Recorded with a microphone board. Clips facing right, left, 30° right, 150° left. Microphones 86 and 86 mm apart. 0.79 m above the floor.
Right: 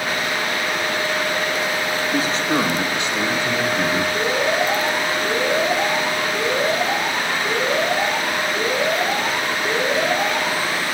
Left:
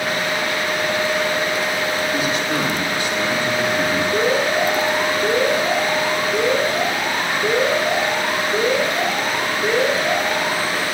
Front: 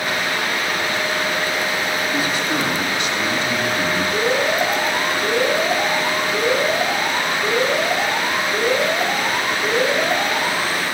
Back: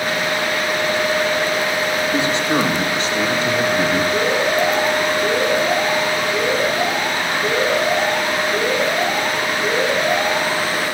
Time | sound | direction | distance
2.1 | a man speaking | 145° right | 3.5 m
4.1 | an alarm | 60° left | 9.5 m